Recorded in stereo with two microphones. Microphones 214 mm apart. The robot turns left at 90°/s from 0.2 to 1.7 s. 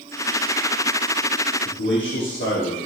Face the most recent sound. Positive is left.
turn(degrees=60)  # may be behind; listen again after turning